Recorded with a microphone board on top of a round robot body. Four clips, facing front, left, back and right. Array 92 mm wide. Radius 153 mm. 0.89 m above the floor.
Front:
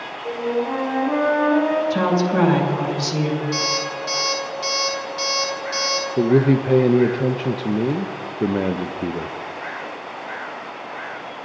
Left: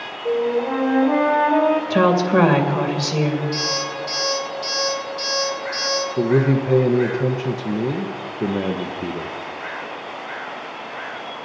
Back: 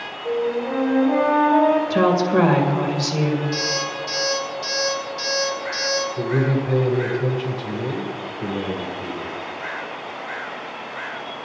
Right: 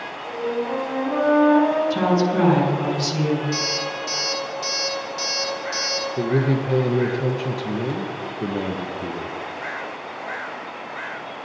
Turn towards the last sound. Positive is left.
turn(degrees=25)